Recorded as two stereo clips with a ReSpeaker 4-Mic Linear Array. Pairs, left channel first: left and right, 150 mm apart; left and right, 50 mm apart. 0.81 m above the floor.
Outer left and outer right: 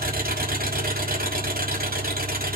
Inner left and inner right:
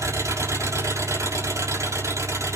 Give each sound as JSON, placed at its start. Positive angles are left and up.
{"t": 0.0, "sound": "an engine running", "side_deg": -80, "distance_m": 5.5}